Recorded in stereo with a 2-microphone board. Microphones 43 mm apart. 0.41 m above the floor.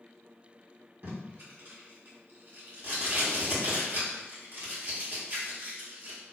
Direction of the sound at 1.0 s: 55° right (ahead or behind).